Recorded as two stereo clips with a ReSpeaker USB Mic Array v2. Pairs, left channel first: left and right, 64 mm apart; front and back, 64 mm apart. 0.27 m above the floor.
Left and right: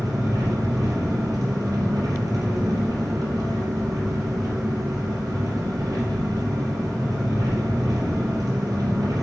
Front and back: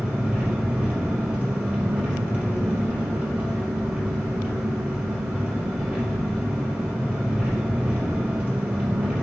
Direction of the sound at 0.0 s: 110° right.